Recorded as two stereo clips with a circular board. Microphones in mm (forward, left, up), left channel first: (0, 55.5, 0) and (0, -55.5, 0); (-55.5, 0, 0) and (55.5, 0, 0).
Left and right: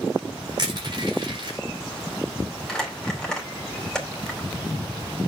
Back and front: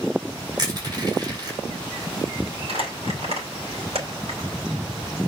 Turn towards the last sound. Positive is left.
turn(degrees=5)